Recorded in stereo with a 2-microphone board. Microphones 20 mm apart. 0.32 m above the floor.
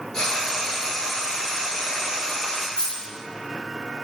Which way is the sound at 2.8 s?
65° left (ahead or behind).